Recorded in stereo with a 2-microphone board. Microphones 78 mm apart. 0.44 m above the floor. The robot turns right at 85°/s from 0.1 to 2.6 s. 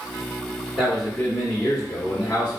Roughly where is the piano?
No piano in this recording.